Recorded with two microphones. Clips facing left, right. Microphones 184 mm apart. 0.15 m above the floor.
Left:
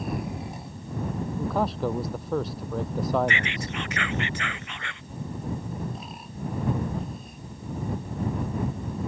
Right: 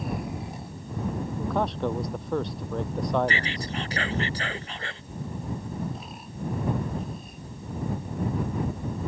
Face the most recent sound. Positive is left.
turn(degrees=-35)  # may be behind; listen again after turning